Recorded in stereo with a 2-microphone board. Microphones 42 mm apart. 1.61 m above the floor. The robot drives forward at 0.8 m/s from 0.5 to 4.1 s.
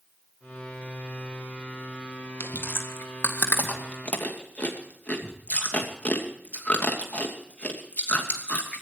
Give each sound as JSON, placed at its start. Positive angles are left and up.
{"t": 2.4, "sound": "chewing", "side_deg": 70, "distance_m": 1.8}